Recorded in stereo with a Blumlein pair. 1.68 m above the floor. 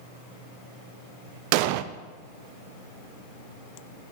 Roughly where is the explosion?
Ahead right.